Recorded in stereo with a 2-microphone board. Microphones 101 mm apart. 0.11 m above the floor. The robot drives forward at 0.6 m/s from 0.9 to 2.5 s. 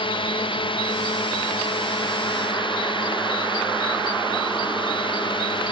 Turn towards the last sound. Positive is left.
turn(degrees=55)  # may be behind; listen again after turning